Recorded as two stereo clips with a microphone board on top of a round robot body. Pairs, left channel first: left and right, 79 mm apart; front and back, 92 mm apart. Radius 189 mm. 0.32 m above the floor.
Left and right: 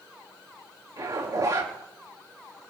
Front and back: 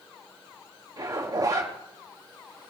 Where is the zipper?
135° right, 5.5 m.